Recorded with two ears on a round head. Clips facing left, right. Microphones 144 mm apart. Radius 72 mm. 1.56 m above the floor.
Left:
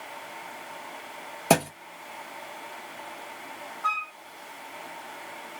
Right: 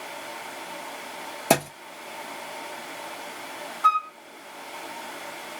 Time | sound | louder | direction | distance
1.5 | a thud | even | 5° right (ahead or behind) | 0.9 m
3.8 | a flute | right 9 dB | 65° right (ahead or behind) | 0.7 m